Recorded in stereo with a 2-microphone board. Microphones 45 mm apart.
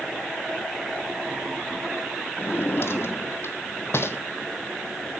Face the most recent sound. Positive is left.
turn(degrees=60)  # may be behind; listen again after turning